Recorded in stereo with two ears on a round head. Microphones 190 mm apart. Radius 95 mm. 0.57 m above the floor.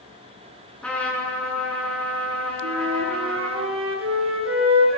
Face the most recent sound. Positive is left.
turn(degrees=-65)  # may be behind; listen again after turning